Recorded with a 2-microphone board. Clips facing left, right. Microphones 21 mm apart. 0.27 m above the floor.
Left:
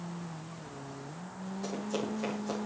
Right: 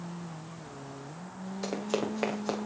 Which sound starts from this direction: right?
Running footsteps, at 1.6 s.